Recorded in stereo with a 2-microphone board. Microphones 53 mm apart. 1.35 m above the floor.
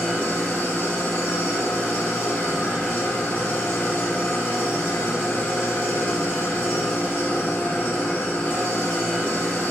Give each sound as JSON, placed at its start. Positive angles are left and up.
{"t": 0.0, "sound": "an engine running", "side_deg": 20, "distance_m": 0.7}